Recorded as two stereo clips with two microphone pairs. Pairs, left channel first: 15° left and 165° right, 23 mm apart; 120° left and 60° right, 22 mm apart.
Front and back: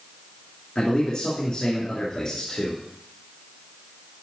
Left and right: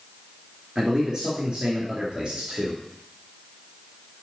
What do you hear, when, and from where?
0.8 s a man speaking: 5° right, 2.5 m; by 2.8 s 35° right, 3 m